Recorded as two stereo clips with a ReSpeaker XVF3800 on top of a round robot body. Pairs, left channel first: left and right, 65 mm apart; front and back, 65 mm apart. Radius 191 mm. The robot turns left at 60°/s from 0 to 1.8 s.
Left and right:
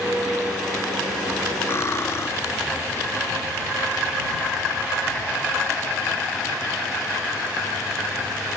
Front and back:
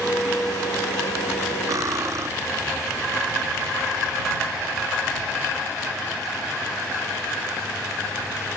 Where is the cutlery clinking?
145° left; by 2.3 s 140° left.